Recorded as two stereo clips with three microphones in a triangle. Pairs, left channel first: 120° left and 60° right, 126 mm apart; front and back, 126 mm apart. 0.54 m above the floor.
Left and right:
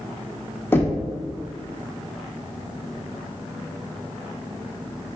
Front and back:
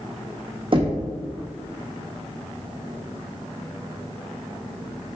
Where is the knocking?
175° right, 1.2 m.